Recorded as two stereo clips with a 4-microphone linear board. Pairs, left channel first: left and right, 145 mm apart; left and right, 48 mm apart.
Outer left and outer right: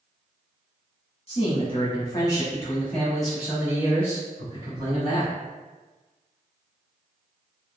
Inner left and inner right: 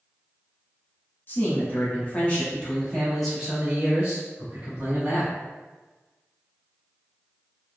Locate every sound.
1.3 s a man speaking: 45° left (ahead or behind), 1.4 m; by 5.3 s 40° right (ahead or behind), 1.5 m